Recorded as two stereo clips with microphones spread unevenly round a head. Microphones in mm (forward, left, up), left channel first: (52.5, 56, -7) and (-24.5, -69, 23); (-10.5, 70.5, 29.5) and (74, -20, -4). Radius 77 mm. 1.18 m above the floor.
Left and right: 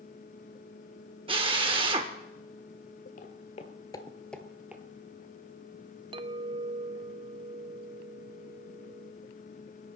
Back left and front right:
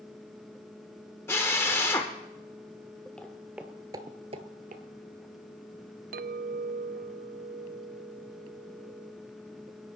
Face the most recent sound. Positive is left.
turn(degrees=-65)